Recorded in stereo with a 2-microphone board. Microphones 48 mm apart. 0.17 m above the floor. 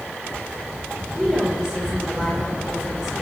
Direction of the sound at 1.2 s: 10° right (ahead or behind).